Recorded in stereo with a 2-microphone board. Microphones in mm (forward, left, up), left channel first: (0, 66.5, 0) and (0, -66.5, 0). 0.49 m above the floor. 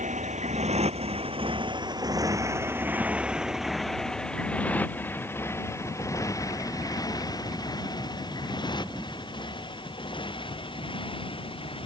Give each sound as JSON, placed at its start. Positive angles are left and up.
{"t": 0.0, "sound": "a motorcycle", "side_deg": -65}